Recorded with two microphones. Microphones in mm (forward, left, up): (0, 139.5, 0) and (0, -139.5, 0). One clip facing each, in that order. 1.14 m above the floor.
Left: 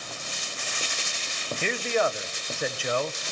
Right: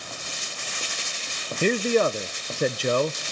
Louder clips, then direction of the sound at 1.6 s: Right 6 dB; 45° right (ahead or behind).